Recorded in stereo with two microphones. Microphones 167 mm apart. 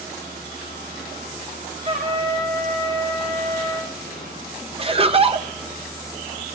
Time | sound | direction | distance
1.9 | a trumpet | 45° right (ahead or behind) | 4.5 m
4.8 | laughter | 35° right (ahead or behind) | 0.9 m